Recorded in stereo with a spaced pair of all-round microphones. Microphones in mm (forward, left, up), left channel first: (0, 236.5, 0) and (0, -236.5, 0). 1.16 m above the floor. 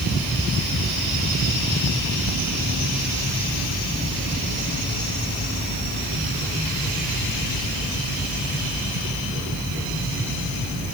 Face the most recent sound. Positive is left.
No sound to turn to.